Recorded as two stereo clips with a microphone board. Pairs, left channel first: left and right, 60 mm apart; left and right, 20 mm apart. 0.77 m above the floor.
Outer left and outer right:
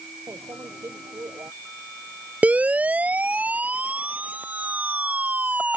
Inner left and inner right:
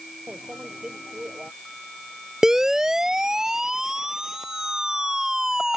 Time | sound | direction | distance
0.3 | a microwave | 55° right (ahead or behind) | ?
2.4 | a siren | 25° right (ahead or behind) | ?